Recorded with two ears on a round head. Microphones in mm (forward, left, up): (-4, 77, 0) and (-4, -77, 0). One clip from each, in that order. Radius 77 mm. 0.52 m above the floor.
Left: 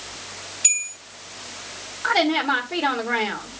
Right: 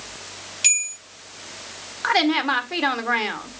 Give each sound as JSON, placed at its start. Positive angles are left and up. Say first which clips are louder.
{"t": 0.6, "sound": "a bell", "louder": "right 3 dB", "side_deg": -70, "distance_m": 3.5}
{"t": 2.0, "sound": "a woman speaking", "louder": "even", "side_deg": -50, "distance_m": 1.6}